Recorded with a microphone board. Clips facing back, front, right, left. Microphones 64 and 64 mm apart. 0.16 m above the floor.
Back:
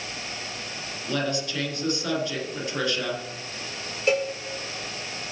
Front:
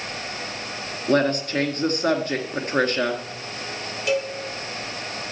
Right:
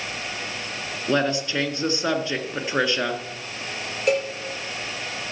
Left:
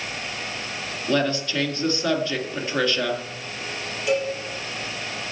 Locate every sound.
1.1 s a woman speaking: 25° right, 1.7 m
4.1 s a cowbell: 125° right, 3 m